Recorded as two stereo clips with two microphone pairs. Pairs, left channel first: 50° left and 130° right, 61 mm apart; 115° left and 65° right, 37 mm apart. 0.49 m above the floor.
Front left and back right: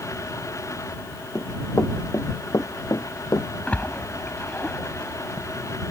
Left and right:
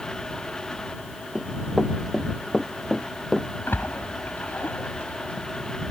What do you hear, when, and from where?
1.4 s running footsteps: 15° left; by 3.5 s 35° left
3.7 s a splash: 115° left